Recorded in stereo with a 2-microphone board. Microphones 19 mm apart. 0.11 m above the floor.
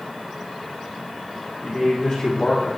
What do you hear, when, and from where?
1.6 s a man speaking: 45° left (ahead or behind), 4 m